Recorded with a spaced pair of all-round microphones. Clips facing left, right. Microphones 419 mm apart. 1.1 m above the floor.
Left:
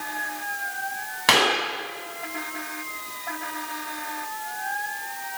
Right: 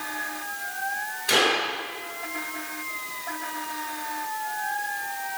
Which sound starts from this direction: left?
A clap, at 1.3 s.